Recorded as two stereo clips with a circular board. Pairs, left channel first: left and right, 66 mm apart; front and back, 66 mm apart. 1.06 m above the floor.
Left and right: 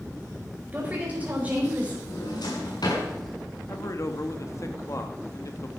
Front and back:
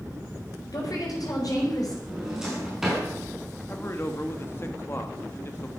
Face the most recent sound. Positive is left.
turn(degrees=50)